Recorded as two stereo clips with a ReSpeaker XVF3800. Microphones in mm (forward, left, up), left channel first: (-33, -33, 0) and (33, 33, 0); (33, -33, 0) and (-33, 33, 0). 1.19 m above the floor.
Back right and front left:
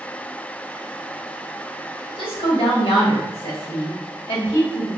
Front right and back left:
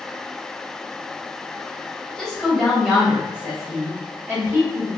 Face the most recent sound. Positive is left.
turn(degrees=-155)